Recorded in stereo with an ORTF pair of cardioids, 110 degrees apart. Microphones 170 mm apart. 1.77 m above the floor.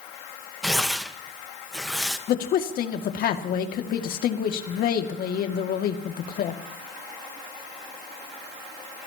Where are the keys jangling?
No keys jangling in this recording.